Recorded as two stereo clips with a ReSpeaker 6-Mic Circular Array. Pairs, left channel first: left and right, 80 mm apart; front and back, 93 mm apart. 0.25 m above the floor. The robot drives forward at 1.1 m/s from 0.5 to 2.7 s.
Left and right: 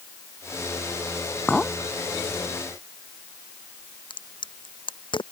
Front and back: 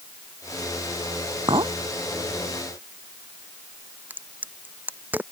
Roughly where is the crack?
Left.